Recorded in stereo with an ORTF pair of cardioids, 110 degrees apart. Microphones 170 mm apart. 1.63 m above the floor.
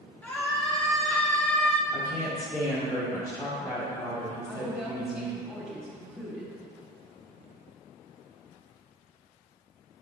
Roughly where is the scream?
Ahead.